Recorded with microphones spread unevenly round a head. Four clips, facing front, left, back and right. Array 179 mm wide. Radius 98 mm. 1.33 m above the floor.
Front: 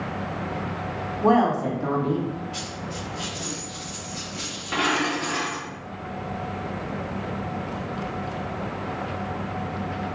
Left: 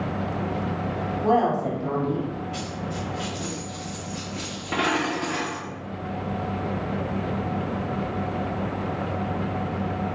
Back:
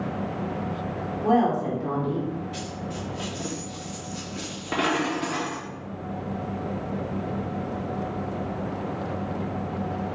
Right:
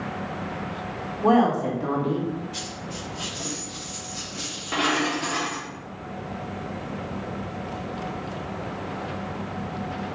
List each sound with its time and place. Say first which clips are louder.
1.2 s a woman speaking: right 2 dB, front 2 dB; 40° right, 2.0 m; by 2.3 s 30° right, 1.5 m
2.5 s a dropped coin: left 4 dB, even; 160° left, 1.0 m